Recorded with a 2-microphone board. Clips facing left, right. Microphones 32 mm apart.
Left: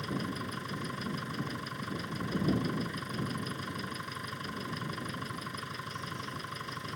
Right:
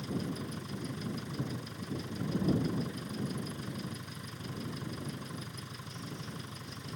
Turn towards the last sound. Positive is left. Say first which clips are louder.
# left 1 dB
turn(degrees=60)  # may be behind; listen again after turning